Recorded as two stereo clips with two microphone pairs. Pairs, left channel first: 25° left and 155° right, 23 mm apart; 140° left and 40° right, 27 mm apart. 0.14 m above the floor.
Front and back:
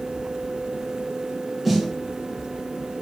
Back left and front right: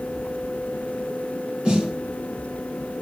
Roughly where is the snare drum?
Right.